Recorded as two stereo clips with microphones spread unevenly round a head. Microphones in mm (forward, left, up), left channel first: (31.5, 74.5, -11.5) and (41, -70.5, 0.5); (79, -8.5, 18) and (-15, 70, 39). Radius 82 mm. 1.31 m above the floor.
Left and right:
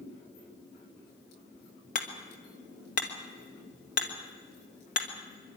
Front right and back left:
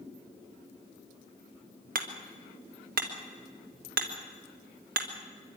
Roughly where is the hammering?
Behind left.